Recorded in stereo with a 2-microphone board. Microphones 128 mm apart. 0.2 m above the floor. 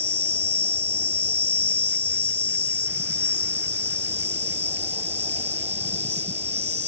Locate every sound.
0.0 s an insect: 55° right (ahead or behind)